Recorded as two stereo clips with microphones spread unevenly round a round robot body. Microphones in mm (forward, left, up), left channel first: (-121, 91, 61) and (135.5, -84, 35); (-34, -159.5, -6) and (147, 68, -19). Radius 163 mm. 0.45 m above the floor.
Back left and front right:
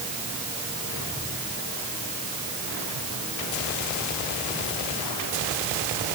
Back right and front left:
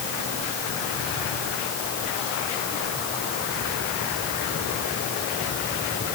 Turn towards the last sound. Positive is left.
No sound to turn to.